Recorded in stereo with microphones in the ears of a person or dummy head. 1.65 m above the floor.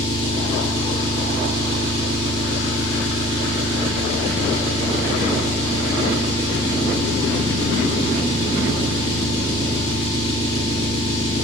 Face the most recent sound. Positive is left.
turn(degrees=25)  # may be behind; listen again after turning